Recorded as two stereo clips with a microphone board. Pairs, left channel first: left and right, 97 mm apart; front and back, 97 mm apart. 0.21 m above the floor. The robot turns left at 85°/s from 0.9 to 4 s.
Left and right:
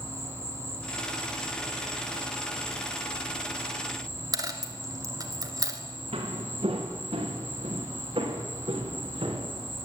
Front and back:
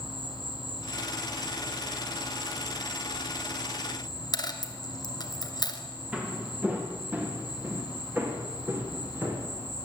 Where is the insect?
150° left, 5.5 m; by 9.8 s 115° right, 5.5 m.